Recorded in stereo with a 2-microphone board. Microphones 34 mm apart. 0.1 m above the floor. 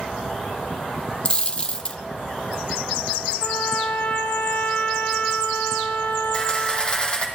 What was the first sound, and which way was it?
A dropped coin, 35° left (ahead or behind).